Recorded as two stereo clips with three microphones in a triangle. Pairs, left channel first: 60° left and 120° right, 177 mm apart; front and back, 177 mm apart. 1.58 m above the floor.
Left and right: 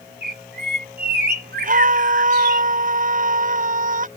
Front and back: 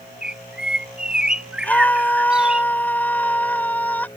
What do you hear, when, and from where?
0.2 s a bird: 95° right
1.6 s a scream: 80° right